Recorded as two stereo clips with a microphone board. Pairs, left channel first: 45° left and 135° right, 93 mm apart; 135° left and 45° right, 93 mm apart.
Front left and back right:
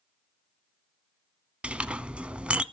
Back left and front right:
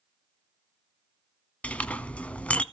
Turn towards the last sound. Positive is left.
turn(degrees=175)